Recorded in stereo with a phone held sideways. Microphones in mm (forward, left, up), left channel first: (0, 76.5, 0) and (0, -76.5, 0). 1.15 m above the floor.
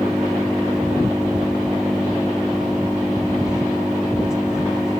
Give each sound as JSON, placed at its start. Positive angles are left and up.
{"t": 0.0, "sound": "an engine running", "side_deg": -5}